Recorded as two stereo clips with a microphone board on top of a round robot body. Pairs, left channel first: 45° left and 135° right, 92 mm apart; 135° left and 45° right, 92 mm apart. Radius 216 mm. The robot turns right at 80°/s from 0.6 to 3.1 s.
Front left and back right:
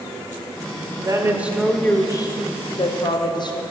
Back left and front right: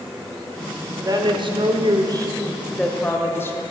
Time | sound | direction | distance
1.0 | a woman speaking | 95° right | 1.7 m